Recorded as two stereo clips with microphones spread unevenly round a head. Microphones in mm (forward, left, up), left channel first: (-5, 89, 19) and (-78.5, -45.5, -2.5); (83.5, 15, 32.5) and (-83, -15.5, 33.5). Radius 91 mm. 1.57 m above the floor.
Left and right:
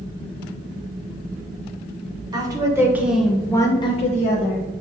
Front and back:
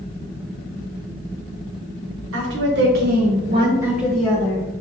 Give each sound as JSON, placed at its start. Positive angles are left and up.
{"t": 2.3, "sound": "a woman speaking", "azimuth_deg": 175, "distance_m": 1.3}